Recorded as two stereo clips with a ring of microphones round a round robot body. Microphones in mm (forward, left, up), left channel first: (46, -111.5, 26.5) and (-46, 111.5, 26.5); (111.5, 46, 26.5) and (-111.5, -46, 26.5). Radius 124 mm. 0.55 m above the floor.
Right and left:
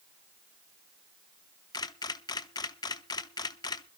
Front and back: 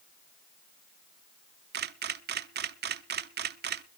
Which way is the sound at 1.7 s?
135° right.